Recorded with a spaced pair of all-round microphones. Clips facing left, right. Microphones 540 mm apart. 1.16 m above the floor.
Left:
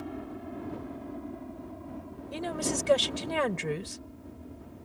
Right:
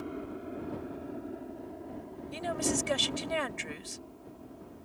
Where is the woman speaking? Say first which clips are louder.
Even; 80° left.